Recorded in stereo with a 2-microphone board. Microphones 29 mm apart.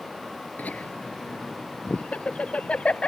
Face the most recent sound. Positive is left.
turn(degrees=45)  # may be behind; listen again after turning